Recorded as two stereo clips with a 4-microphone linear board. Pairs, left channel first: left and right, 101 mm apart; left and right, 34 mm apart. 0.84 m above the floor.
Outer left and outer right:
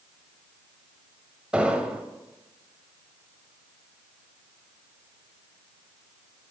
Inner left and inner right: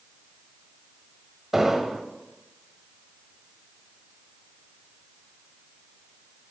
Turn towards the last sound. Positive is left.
turn(degrees=-10)  # may be behind; listen again after turning